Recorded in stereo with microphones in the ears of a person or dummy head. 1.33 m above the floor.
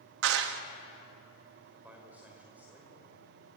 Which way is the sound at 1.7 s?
5° right (ahead or behind).